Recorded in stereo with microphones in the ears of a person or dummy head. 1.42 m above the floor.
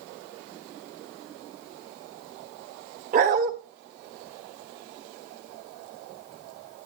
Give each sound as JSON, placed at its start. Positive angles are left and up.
{"t": 3.1, "sound": "a dog barking", "side_deg": -45, "distance_m": 1.5}